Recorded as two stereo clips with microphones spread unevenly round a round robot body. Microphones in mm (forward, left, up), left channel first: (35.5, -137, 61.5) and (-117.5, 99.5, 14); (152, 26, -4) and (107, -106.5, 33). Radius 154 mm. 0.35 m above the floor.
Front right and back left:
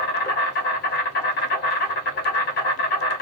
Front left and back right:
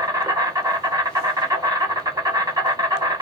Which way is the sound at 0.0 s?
40° right.